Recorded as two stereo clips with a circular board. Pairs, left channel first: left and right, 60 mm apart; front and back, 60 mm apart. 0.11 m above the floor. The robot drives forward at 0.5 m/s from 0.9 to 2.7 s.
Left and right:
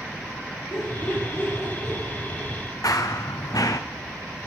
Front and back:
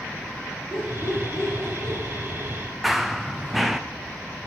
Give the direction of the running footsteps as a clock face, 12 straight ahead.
9 o'clock.